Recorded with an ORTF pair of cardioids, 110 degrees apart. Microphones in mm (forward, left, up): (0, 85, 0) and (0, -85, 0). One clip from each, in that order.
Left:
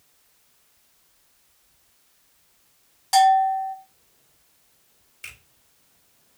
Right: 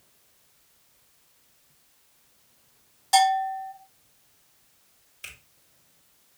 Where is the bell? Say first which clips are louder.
Left 4 dB; 15° left, 1.9 m.